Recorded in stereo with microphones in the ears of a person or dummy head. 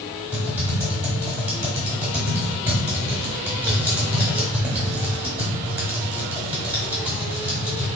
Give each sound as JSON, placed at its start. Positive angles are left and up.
{"t": 0.3, "sound": "typing on a keyboard", "side_deg": -10, "distance_m": 0.9}